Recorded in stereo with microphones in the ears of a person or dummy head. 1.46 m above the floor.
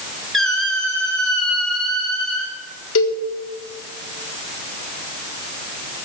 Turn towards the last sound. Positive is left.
turn(degrees=85)